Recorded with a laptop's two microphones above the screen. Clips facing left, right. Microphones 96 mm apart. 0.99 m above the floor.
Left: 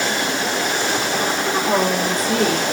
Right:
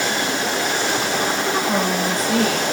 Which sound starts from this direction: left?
A woman speaking, at 1.6 s.